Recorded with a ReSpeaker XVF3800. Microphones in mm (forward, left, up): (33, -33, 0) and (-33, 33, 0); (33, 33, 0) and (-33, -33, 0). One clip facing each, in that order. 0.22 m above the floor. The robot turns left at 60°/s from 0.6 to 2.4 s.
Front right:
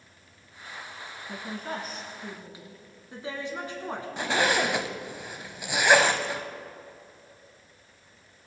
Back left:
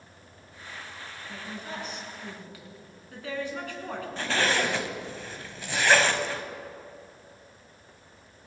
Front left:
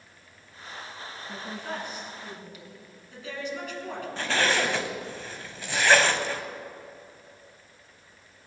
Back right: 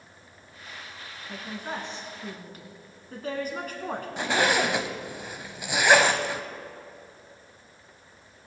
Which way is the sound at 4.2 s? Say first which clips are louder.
Front right 2 dB, back right 2 dB; 90° right.